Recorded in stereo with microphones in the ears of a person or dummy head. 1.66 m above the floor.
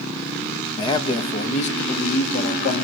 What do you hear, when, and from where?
0.8 s a man speaking: 30° left (ahead or behind), 2.0 m; by 2.8 s 65° left (ahead or behind), 3 m